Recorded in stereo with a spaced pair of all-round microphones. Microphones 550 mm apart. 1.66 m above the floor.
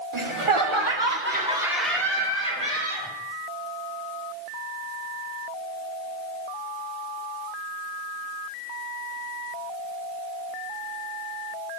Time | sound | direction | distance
0.1 | laughter | 55° right (ahead or behind) | 1.4 m